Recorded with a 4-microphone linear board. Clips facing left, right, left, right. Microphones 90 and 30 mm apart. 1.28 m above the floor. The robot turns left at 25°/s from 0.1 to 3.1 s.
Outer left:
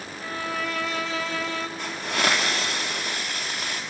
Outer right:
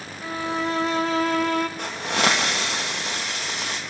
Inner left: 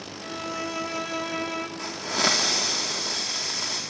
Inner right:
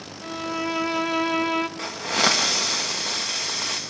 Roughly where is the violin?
Ahead.